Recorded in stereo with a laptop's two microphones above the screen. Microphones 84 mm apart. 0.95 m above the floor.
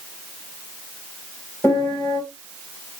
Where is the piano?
10° left (ahead or behind), 2 m.